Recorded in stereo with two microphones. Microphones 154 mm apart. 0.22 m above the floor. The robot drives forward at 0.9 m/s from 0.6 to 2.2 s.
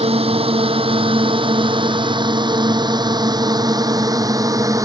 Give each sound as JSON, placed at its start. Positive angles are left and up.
{"t": 0.0, "sound": "a drone", "side_deg": -40}